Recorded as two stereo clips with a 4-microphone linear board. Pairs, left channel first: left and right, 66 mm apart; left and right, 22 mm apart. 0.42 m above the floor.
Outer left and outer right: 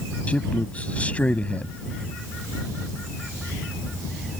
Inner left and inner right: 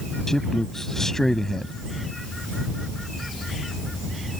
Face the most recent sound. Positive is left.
turn(degrees=20)  # may be behind; listen again after turning